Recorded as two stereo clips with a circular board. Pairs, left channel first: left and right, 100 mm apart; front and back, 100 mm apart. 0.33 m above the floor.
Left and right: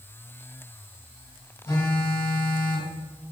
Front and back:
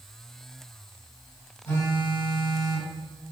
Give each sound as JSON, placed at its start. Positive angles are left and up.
{"t": 1.6, "sound": "a phone buzzing", "azimuth_deg": 50, "distance_m": 2.0}